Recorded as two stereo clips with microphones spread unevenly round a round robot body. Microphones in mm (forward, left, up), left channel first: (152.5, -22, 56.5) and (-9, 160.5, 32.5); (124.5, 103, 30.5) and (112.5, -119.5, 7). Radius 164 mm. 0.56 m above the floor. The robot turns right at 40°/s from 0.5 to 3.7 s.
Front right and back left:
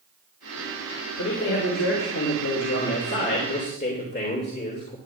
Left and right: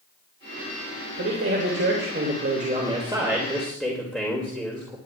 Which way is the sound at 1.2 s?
100° right.